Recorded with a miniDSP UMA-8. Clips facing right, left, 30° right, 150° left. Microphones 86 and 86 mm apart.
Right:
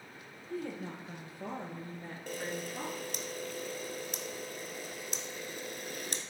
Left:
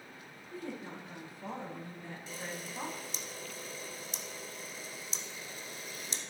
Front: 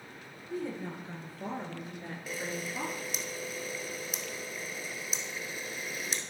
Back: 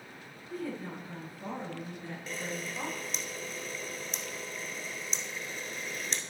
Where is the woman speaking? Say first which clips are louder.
Right 3 dB, front 1 dB; 95° right, 3.5 m; by 3.3 s 25° right, 2.5 m.